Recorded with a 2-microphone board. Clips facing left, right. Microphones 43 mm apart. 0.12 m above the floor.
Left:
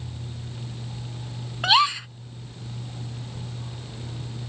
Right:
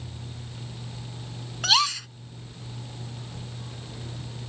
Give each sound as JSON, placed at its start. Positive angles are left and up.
{"t": 1.6, "sound": "a gasp", "side_deg": 20}